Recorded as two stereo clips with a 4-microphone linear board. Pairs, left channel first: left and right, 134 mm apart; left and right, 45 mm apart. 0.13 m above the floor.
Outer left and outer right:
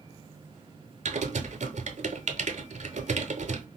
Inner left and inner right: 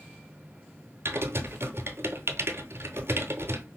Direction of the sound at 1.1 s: 60° right (ahead or behind).